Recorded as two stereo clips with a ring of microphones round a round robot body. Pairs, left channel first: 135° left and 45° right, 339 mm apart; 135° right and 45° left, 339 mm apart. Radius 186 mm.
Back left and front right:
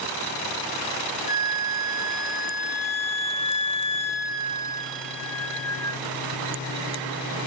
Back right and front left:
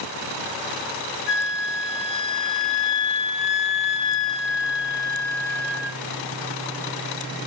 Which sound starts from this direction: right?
A flute, at 1.3 s.